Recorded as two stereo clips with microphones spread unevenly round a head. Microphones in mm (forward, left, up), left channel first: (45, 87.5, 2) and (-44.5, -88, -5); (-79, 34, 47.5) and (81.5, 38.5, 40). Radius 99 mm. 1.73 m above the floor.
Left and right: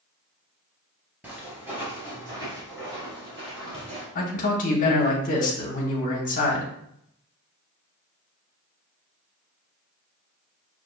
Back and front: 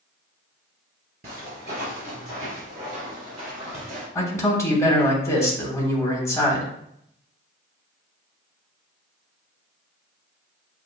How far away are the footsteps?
About 2 m.